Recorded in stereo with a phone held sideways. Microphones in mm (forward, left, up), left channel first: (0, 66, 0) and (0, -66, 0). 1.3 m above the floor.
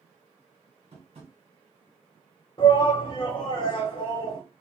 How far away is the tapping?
About 1.8 m.